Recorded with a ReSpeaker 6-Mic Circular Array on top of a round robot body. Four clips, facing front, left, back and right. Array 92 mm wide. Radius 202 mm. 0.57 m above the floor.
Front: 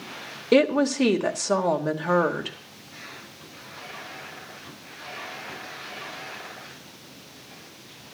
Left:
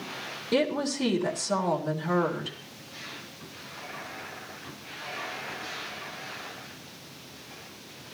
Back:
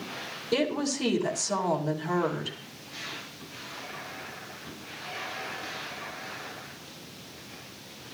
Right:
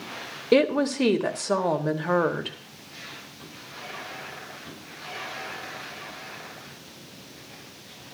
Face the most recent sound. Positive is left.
turn(degrees=-40)